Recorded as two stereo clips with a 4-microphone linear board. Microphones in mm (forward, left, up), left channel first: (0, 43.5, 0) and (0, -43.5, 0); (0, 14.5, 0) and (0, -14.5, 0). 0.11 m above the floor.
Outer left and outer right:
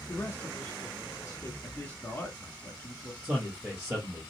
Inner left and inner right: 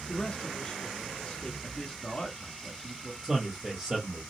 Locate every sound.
0.1 s a man speaking: 25° left (ahead or behind), 1.1 m
1.6 s a man speaking: 20° left (ahead or behind), 1.2 m
3.2 s a man speaking: 15° right (ahead or behind), 1.7 m